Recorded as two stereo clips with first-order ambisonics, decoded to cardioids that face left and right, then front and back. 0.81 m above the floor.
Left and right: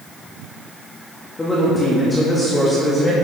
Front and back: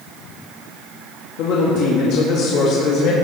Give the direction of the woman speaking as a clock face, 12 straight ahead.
11 o'clock.